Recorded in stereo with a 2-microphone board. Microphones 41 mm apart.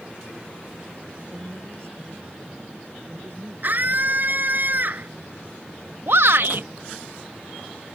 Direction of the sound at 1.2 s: 80° right.